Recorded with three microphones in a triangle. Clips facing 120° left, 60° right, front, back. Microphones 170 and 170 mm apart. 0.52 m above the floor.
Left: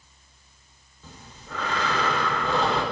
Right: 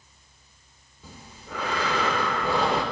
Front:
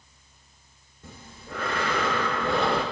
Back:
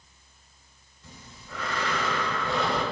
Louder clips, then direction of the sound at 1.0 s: Right 1 dB, front 5 dB; 15° left.